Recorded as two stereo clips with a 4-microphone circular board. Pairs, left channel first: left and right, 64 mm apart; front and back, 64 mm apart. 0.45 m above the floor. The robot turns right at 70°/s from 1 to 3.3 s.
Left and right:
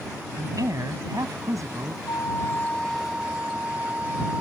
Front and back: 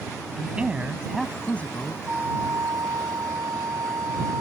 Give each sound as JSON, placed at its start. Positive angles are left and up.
{"t": 0.4, "sound": "a man speaking", "azimuth_deg": -110}
{"t": 2.1, "sound": "a flute", "azimuth_deg": 115}